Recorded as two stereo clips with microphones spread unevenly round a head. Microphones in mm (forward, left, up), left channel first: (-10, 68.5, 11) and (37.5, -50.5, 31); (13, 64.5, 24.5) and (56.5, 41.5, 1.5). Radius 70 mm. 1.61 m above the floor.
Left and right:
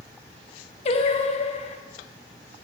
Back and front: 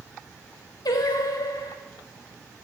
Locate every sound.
0.8 s singing: 150° left, 0.5 m